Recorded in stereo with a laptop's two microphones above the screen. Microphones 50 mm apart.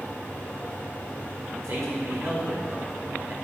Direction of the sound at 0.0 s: 30° left (ahead or behind).